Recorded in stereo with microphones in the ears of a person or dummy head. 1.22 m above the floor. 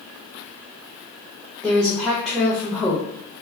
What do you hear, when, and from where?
1.6 s a woman speaking: 10° left (ahead or behind), 0.8 m